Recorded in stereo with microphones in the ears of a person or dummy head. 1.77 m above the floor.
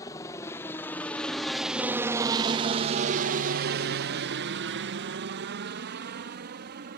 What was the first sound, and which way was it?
A helicopter, 20° left (ahead or behind).